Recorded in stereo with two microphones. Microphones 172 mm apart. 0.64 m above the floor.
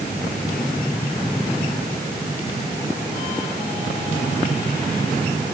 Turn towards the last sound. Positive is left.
No sound to turn to.